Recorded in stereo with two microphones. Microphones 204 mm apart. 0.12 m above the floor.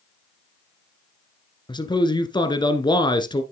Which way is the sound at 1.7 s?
20° left (ahead or behind).